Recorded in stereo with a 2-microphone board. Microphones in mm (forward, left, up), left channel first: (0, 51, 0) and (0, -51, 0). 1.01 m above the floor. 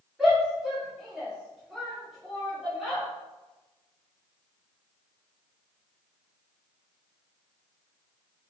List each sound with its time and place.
0.2 s a shout: centre (ahead or behind), 1.9 m